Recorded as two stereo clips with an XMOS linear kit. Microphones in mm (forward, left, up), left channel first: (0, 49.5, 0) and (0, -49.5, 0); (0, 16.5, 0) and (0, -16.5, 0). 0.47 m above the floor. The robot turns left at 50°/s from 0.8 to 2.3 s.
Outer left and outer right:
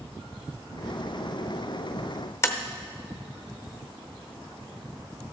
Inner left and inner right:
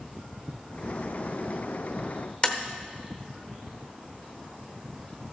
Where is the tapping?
25° left (ahead or behind), 0.8 m.